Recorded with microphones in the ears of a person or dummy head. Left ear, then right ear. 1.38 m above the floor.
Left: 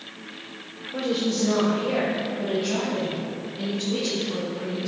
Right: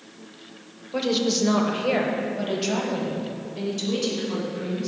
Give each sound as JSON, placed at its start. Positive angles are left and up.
{"t": 0.9, "sound": "a woman speaking", "side_deg": -35, "distance_m": 0.8}